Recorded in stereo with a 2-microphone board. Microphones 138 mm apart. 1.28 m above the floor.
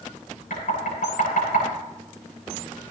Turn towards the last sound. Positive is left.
turn(degrees=75)  # may be behind; listen again after turning